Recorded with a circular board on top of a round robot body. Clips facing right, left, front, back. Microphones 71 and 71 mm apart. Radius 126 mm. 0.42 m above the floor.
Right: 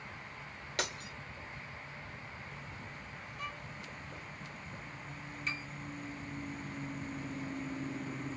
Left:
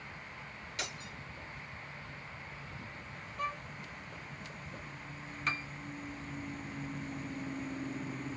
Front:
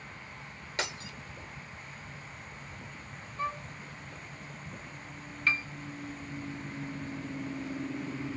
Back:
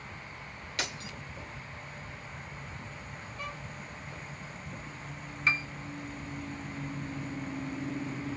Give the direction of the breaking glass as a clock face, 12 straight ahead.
2 o'clock.